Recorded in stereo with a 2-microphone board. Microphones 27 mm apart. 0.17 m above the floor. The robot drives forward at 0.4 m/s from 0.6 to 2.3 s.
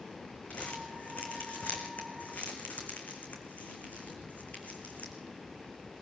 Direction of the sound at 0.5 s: 60° left (ahead or behind).